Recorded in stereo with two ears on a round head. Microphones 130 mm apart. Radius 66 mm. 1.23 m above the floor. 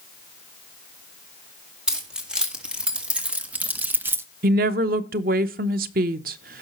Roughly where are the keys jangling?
Centre.